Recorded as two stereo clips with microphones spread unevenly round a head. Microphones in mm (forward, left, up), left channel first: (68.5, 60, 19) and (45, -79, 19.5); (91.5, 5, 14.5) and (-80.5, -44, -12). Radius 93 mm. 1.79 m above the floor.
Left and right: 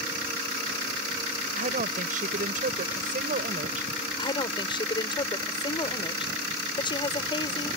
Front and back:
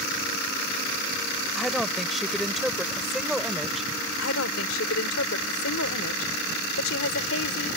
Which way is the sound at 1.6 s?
75° right.